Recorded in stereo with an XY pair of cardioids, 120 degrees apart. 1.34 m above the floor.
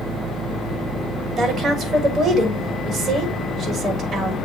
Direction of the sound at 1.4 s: 45° right.